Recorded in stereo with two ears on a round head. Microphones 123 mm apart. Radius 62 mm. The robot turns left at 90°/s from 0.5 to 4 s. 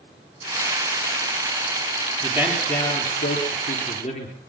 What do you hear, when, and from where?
2.2 s a man speaking: 150° right, 8.5 m; by 4.3 s 45° left, 8.5 m